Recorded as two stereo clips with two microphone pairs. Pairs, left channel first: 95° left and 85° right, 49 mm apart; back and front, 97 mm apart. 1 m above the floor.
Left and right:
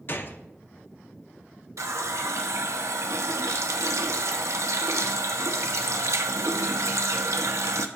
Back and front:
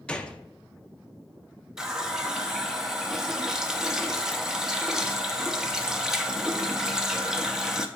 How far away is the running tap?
About 0.6 m.